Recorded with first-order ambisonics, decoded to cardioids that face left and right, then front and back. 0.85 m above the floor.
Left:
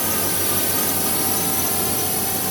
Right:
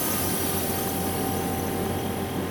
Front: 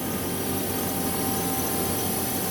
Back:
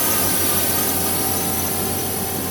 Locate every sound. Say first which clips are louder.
0.0 s a drone: left 4 dB, back 8 dB; 155° left; by 2.5 s 100° left